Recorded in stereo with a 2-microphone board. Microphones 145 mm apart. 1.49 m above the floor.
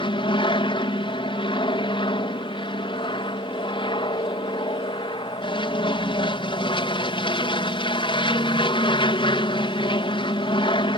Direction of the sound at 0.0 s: 35° left (ahead or behind).